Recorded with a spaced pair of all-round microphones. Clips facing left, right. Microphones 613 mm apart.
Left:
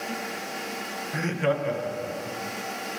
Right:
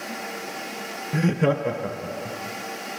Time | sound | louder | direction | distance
1.1 | laughter | right 5 dB | 55° right (ahead or behind) | 0.8 m